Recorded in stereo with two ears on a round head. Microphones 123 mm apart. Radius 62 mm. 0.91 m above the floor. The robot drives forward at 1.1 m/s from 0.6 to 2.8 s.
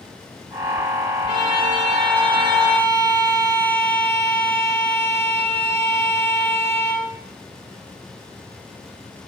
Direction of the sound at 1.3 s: 40° left (ahead or behind).